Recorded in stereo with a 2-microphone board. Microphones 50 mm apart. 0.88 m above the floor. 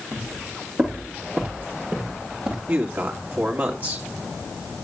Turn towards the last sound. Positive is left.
turn(degrees=-35)  # may be behind; listen again after turning